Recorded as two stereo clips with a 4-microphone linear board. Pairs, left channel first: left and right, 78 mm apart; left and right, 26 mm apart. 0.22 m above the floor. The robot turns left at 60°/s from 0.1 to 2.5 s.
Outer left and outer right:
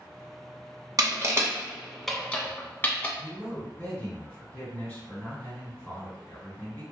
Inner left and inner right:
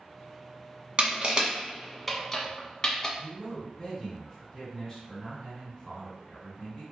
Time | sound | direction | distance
1.0 | crushing | 50° right (ahead or behind) | 0.5 m
3.2 | a man speaking | 20° left (ahead or behind) | 1.8 m